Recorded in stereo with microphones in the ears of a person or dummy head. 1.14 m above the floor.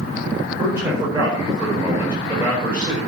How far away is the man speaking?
About 4.5 m.